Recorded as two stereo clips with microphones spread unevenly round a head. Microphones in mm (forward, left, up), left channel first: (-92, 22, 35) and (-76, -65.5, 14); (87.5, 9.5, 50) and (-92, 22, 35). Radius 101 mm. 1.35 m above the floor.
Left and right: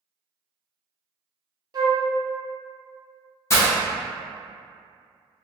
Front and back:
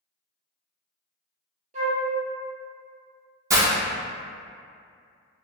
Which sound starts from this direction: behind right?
A flute, at 1.7 s.